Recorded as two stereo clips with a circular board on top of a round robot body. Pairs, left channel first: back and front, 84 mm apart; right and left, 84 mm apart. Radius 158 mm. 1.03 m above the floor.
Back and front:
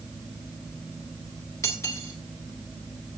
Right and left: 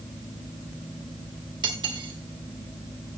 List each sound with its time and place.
1.6 s cutlery clinking: 125° left, 2 m